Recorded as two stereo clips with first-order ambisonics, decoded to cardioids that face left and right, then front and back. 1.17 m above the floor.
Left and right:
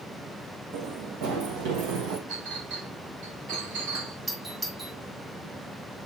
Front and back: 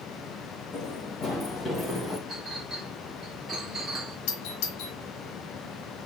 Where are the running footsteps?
65° right, 2.5 m; by 2.2 s 85° right, 2 m.